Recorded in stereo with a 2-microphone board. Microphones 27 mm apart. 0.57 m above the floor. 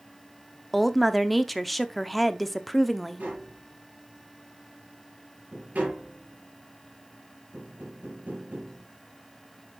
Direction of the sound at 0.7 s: 5° left (ahead or behind).